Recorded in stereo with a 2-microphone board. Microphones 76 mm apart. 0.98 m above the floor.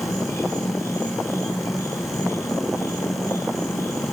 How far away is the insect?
About 2 m.